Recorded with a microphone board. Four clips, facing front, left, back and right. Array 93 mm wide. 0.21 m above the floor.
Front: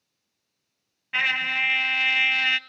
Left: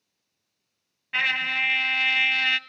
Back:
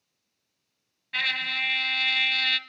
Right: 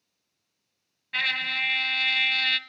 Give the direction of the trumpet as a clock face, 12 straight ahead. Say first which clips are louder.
Left 3 dB, front 4 dB; 11 o'clock.